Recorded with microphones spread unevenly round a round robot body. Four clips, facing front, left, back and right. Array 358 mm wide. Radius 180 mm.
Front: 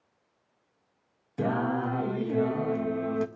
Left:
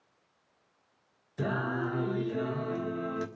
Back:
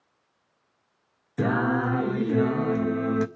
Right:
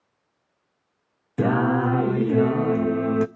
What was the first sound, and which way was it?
Singing, 110° right.